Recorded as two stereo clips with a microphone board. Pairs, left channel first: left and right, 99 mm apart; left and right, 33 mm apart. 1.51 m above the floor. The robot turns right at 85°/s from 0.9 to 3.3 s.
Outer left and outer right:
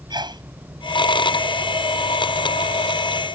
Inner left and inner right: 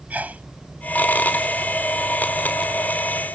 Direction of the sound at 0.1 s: 45° right (ahead or behind).